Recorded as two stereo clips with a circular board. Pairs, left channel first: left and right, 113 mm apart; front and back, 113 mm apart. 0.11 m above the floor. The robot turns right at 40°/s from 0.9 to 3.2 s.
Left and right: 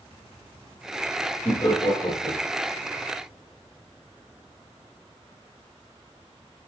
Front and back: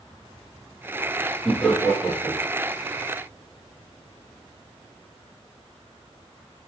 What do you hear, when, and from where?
1.4 s laughter: 70° left, 1.4 m; by 2.5 s 115° left, 1.4 m